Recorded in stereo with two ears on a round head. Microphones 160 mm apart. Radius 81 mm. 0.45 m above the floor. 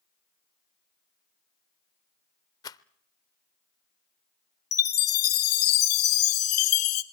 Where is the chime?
55° left (ahead or behind), 1.2 m.